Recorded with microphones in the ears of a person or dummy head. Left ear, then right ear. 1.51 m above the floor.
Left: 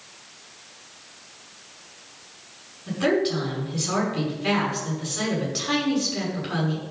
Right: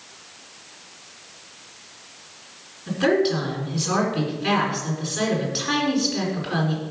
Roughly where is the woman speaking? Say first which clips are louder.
Right 3 dB; centre.